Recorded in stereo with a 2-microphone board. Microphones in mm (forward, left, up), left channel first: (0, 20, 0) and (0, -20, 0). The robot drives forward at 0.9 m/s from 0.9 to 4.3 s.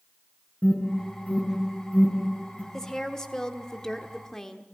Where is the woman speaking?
10° left (ahead or behind), 1.6 m; by 4.7 s 15° left (ahead or behind), 1.3 m.